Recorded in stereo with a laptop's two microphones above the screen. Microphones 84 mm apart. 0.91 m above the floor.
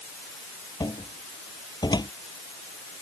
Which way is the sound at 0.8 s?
55° left (ahead or behind).